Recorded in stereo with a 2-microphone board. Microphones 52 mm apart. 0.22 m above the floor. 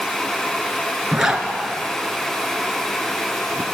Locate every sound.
1.1 s a zipper: 10° right (ahead or behind), 2 m